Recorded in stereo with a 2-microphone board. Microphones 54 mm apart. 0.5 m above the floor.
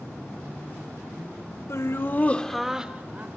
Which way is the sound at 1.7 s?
60° left (ahead or behind).